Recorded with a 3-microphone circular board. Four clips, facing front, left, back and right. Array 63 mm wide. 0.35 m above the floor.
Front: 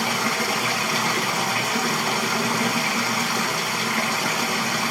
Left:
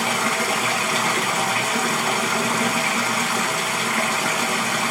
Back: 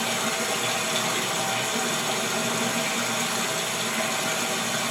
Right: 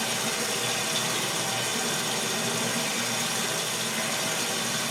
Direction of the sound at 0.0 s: 65° left.